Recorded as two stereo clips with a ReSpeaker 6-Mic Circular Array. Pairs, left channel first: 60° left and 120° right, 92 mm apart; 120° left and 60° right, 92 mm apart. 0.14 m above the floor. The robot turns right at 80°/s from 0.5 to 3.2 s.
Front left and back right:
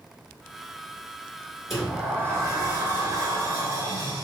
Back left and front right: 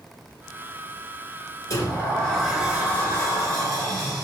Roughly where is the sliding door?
Behind left.